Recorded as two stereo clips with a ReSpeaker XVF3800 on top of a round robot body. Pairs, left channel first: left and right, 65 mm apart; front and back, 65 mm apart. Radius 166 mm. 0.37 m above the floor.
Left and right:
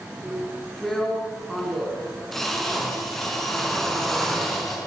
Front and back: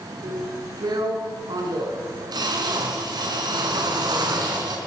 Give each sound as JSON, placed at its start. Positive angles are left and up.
{"t": 0.2, "sound": "a drill", "azimuth_deg": 175, "distance_m": 5.5}